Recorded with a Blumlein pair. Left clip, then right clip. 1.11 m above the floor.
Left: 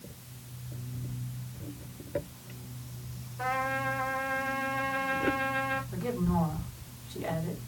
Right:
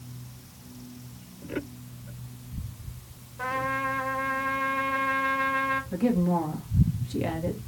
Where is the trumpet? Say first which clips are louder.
Right 2 dB; 15° right, 2.5 m.